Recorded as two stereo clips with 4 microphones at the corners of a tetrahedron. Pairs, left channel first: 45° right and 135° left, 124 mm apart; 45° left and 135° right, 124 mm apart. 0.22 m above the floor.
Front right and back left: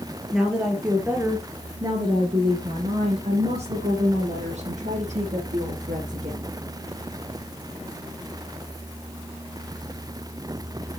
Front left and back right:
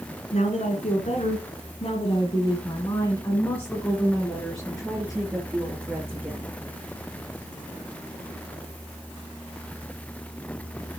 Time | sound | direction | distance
0.3 | a woman speaking | 50° left | 3.5 m